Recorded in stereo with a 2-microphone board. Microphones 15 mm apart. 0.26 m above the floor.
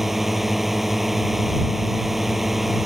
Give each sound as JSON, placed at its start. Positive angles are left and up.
{"t": 0.0, "sound": "a drone", "side_deg": -15}